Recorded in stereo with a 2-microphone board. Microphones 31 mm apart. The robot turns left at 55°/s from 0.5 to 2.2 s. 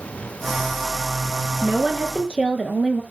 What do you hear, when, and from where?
1.6 s a woman speaking: 120° right, 2.5 m; by 3.0 s 155° right, 2.5 m